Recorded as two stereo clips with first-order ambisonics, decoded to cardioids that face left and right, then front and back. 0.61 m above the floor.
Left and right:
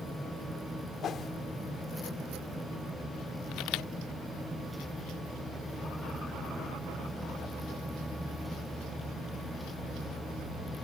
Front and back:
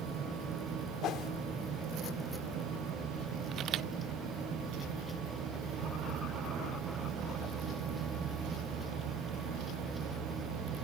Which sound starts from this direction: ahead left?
A whoosh, at 1.0 s.